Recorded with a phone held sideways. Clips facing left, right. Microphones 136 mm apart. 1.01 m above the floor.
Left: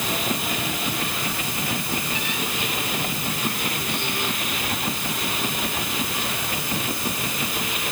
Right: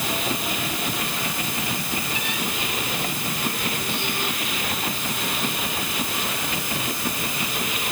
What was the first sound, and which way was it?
Only background noise.